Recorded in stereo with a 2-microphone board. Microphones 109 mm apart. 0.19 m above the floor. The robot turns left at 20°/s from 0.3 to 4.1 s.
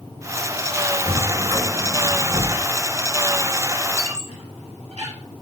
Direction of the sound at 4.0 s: 70° right (ahead or behind).